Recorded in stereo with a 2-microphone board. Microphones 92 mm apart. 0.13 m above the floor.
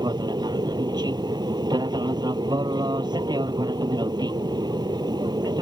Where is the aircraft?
50° right (ahead or behind).